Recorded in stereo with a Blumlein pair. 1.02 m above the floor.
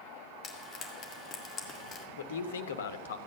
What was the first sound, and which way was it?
Frying, 25° left.